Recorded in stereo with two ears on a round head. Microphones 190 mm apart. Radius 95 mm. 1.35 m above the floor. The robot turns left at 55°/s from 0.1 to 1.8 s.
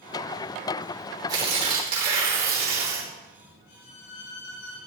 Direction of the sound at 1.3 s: 20° right (ahead or behind).